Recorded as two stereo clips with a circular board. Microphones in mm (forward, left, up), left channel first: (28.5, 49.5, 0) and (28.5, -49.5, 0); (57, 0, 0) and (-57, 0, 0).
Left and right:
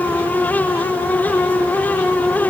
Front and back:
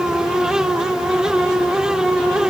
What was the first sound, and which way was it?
Only background noise.